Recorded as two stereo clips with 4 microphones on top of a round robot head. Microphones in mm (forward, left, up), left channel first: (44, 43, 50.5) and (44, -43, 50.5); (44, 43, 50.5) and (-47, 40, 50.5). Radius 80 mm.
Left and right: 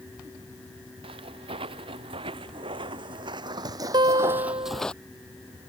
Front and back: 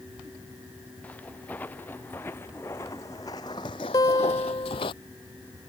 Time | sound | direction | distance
1.0 | footsteps | 75° right | ?
3.9 | a guitar | 55° right | ?